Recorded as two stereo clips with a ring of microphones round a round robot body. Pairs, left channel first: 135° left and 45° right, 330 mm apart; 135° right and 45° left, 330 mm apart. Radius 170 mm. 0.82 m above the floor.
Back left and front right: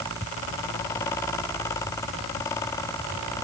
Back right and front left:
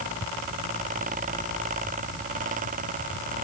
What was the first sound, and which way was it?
Only background noise.